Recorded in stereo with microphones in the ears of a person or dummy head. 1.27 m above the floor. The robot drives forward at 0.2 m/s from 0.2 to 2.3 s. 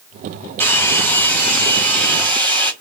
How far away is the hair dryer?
About 0.6 m.